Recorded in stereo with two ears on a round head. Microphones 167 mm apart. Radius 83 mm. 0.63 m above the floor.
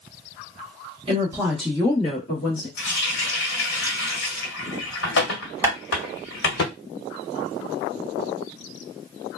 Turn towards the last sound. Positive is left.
turn(degrees=-15)  # may be behind; listen again after turning